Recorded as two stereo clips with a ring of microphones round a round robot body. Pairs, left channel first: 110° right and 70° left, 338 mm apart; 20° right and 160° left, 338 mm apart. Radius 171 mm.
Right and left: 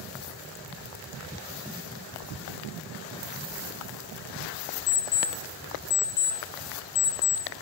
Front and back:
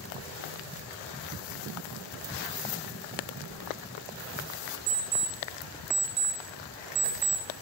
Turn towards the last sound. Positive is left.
turn(degrees=-165)